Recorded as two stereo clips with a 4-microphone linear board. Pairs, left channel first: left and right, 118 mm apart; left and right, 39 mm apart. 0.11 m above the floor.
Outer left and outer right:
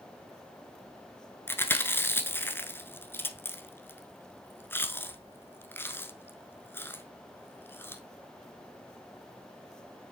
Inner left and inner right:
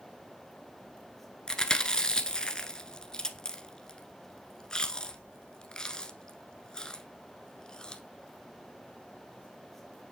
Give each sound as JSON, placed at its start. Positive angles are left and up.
{"t": 1.5, "sound": "chewing", "side_deg": 20, "distance_m": 0.9}